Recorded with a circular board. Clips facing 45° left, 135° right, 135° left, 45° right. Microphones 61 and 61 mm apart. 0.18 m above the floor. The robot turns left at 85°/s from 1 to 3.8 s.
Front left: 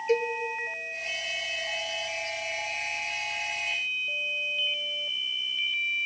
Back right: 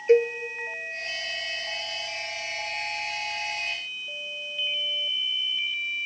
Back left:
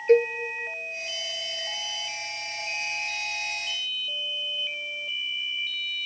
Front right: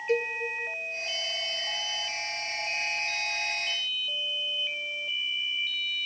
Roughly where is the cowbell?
Behind.